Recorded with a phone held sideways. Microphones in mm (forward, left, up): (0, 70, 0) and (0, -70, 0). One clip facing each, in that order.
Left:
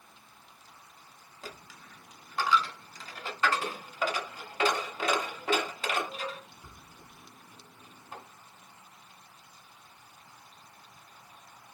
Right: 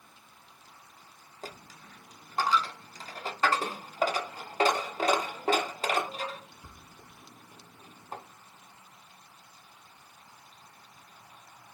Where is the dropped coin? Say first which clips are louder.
Right 2 dB; 35° right (ahead or behind), 0.5 m.